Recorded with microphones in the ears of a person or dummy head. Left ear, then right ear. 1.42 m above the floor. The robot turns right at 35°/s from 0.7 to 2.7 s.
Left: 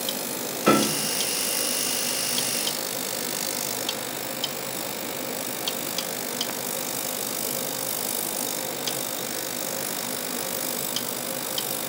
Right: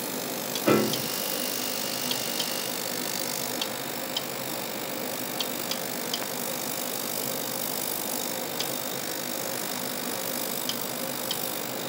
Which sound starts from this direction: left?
A piano, at 0.7 s.